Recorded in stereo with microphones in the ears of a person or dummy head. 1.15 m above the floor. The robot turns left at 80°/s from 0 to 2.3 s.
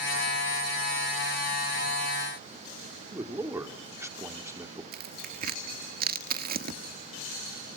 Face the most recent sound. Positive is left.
turn(degrees=-55)  # may be behind; listen again after turning